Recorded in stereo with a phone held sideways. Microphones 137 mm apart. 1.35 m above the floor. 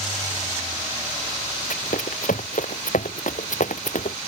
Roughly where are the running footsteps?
Left.